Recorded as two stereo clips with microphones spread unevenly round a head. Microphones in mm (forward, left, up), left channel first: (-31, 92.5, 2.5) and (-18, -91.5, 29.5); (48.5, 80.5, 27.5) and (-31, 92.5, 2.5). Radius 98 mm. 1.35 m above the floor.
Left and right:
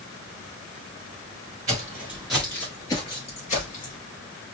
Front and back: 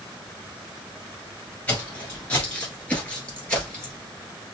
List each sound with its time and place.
1.7 s footsteps: 40° right, 1.6 m; by 4.0 s 50° left, 2 m